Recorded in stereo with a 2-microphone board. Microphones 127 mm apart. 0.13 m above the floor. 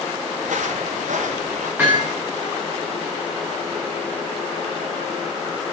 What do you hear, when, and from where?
0.4 s footsteps: 85° right, 6.5 m
1.8 s hammering: 15° right (ahead or behind), 9 m